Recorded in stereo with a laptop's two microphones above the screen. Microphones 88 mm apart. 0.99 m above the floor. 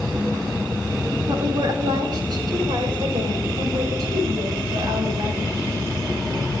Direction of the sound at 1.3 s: 55° right (ahead or behind).